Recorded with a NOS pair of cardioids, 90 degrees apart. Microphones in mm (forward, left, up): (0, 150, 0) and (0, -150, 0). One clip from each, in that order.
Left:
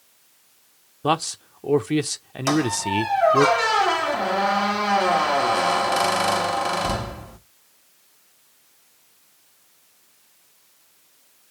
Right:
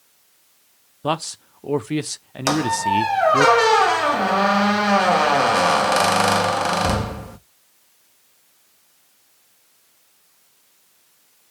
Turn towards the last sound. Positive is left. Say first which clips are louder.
# right 3 dB
turn(degrees=-35)